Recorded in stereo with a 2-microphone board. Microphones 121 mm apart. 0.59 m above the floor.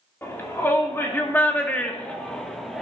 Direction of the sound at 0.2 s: 20° left (ahead or behind).